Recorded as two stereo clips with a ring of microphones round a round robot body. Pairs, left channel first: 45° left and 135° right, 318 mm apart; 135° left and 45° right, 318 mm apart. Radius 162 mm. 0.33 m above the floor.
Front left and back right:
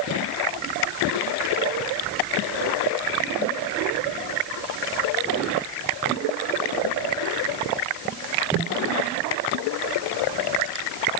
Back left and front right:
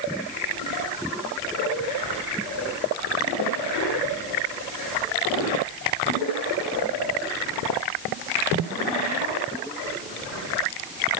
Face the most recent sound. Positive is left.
No sound to turn to.